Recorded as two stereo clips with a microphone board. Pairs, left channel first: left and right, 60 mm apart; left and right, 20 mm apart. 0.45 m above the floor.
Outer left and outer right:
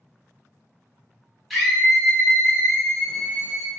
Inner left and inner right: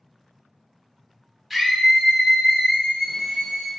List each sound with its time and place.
1.5 s a scream: centre (ahead or behind), 1.1 m; by 3.7 s 50° left (ahead or behind), 1.5 m